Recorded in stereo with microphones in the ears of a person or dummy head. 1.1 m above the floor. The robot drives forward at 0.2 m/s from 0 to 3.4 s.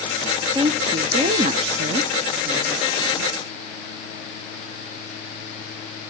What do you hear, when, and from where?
0.6 s a woman speaking: 25° right (ahead or behind), 0.5 m